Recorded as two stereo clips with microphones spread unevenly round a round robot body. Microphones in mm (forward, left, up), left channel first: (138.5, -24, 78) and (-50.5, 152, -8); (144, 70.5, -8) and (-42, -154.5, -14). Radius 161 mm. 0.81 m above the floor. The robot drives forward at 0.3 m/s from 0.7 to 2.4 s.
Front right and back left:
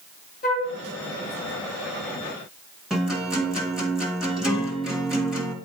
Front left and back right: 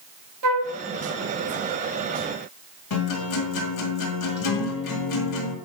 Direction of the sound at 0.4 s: 110° right.